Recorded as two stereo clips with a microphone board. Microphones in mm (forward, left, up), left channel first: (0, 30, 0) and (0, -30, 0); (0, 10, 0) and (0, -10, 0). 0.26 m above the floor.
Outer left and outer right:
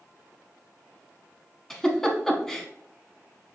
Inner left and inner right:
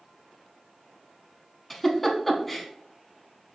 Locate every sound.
1.7 s a giggle: 10° left (ahead or behind), 0.7 m